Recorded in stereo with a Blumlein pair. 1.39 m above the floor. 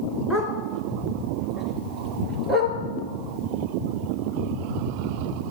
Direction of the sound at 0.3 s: 5° left.